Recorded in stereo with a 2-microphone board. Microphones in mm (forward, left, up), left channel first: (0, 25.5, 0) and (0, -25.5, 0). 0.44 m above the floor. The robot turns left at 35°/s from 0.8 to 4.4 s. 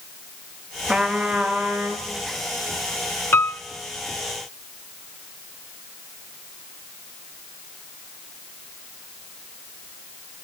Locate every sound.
0.9 s a trumpet: 5° right, 3.5 m; by 2.1 s 45° right, 3.5 m
3.3 s a piano: 55° left (ahead or behind), 0.8 m